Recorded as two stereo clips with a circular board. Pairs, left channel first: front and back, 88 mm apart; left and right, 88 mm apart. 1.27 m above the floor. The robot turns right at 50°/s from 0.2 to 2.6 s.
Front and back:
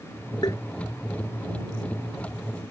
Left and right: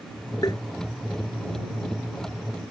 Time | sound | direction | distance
0.4 | tapping | 40° left | ?